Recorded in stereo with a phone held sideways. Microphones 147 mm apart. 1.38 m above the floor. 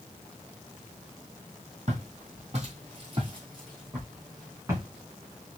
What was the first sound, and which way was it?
Footsteps, 55° right (ahead or behind).